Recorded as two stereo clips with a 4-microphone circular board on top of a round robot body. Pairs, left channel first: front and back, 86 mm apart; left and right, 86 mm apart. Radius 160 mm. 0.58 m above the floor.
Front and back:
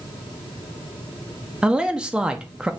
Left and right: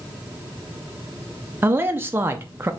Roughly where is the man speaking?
Right.